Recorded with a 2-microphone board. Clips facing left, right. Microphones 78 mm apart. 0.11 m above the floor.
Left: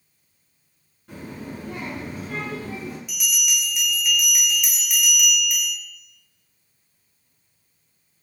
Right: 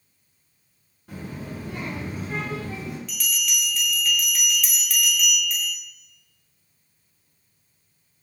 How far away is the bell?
About 0.5 m.